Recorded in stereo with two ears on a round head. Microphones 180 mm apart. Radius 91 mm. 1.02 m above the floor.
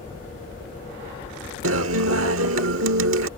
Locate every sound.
0.0 s a helicopter: 30° left (ahead or behind)
1.6 s a guitar: 75° right (ahead or behind)